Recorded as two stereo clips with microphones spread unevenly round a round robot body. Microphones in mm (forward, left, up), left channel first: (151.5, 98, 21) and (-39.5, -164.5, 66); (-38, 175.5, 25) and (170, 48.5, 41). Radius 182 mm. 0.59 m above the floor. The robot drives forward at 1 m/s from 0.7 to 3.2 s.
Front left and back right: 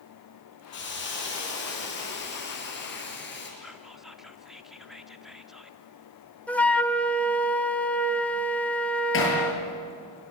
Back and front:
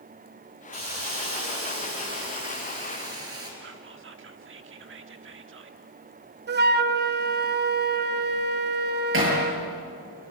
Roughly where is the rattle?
No rattle in this recording.